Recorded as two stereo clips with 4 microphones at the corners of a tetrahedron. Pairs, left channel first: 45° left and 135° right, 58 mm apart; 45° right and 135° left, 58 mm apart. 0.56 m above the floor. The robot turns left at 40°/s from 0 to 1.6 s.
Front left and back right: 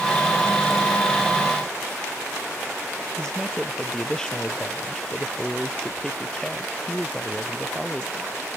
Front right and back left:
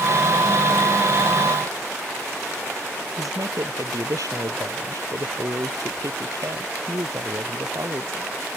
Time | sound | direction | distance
3.2 | a man speaking | 125° left | ?